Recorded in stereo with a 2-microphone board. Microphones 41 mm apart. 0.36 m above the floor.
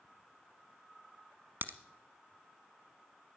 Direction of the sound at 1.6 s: 65° right (ahead or behind).